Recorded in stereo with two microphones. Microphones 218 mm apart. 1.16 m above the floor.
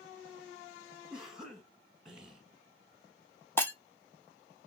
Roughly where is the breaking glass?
Centre.